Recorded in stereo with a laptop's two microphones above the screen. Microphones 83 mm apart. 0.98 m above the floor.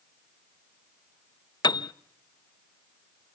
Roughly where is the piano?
Left.